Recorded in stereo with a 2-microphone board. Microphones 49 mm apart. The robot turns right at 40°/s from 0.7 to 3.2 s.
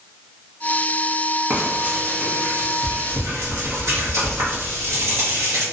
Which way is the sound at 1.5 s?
155° right.